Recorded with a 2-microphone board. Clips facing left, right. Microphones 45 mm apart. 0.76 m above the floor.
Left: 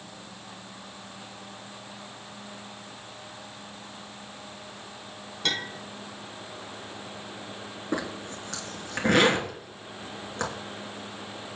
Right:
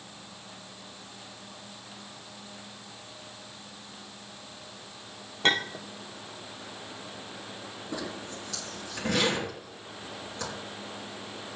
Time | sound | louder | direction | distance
5.4 | a clink | right 5 dB | 35° right (ahead or behind) | 1.4 m
7.9 | a zipper | left 5 dB | 45° left (ahead or behind) | 2.5 m